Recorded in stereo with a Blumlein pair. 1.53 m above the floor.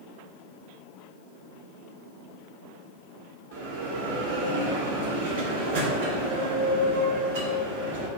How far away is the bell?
About 2.5 m.